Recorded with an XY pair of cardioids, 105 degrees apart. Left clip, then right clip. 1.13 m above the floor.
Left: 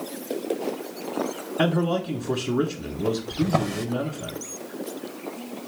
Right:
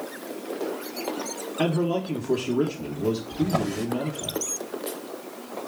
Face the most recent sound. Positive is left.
turn(degrees=25)